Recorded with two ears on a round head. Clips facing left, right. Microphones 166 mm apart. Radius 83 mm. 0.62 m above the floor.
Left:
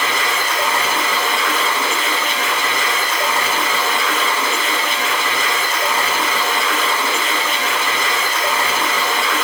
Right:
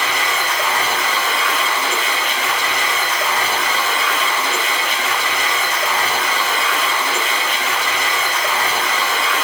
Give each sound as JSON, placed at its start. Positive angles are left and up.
{"t": 0.0, "sound": "running water", "side_deg": 40, "distance_m": 1.6}